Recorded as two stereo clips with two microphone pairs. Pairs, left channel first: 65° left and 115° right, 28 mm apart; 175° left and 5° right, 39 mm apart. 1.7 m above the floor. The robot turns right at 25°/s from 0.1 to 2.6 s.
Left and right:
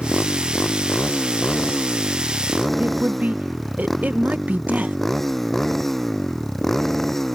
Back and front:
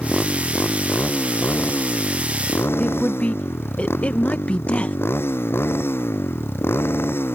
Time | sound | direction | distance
0.0 | a motorcycle | 95° left | ?
2.8 | a woman speaking | 135° right | ?